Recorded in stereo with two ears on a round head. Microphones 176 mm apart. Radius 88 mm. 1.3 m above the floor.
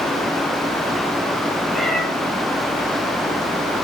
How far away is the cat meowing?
About 3.5 m.